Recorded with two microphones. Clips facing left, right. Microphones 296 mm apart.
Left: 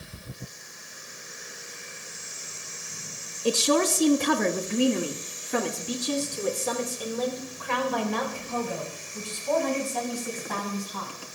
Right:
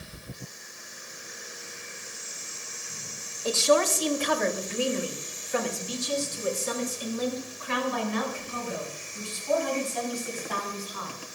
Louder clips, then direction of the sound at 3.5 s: Left 1 dB; 35° left (ahead or behind).